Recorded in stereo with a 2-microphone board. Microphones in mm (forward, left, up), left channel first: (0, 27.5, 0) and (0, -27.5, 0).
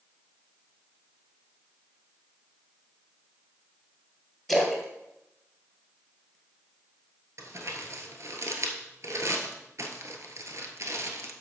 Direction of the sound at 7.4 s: 60° right (ahead or behind).